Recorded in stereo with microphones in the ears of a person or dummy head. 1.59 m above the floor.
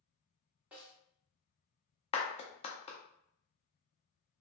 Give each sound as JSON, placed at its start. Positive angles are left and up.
{"t": 0.7, "sound": "a snare drum", "side_deg": -5, "distance_m": 1.2}
{"t": 2.1, "sound": "a clap", "side_deg": 30, "distance_m": 0.6}